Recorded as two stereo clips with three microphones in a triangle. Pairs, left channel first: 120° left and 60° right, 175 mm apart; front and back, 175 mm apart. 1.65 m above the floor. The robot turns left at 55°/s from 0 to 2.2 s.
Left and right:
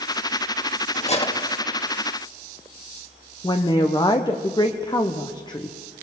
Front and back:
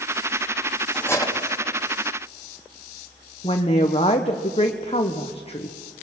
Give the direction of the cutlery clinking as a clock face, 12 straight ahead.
9 o'clock.